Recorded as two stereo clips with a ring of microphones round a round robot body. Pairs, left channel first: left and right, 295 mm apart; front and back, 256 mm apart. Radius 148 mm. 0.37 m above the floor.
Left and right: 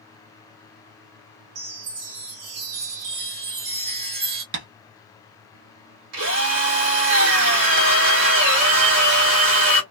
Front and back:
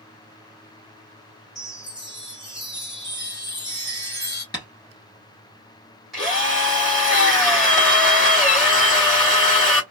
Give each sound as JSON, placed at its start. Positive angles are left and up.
{"t": 1.6, "sound": "a chime", "azimuth_deg": -75, "distance_m": 1.8}
{"t": 4.5, "sound": "tapping", "azimuth_deg": -75, "distance_m": 1.8}
{"t": 6.1, "sound": "a drill", "azimuth_deg": -90, "distance_m": 2.0}